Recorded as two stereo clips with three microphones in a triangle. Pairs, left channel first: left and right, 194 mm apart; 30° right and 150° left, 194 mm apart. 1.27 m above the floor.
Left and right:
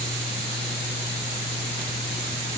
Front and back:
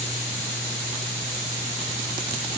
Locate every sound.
Only background noise.